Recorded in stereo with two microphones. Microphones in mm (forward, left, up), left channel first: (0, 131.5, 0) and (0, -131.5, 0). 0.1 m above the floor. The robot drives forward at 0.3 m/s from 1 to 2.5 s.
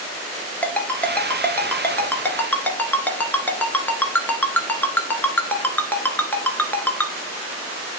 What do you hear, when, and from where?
0.6 s a ringtone: 5° left (ahead or behind), 1.1 m